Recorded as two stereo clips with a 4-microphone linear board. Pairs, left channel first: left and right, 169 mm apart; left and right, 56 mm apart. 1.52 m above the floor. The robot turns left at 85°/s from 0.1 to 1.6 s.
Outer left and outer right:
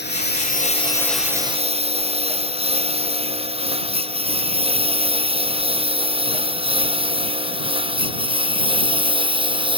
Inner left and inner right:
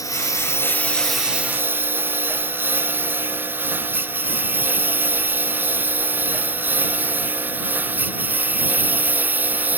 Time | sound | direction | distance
0.0 | a lawn mower | 90° left | ?